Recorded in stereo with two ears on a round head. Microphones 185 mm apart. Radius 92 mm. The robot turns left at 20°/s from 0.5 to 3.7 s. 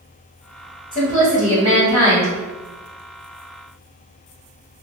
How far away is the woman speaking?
About 1.4 m.